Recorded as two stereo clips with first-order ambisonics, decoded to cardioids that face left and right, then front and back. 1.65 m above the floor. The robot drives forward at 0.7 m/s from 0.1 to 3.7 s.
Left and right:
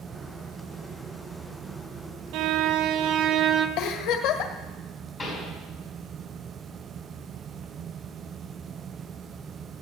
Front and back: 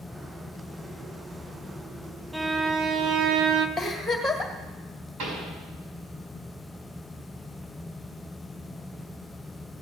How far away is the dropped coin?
No dropped coin in this recording.